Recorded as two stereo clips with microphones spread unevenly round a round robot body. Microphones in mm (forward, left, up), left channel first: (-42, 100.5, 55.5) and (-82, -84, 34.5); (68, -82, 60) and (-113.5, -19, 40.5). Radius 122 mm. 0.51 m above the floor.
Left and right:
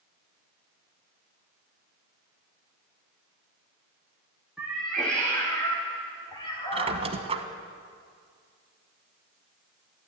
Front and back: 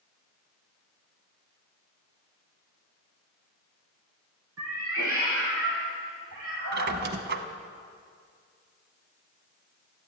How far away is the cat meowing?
About 2.5 m.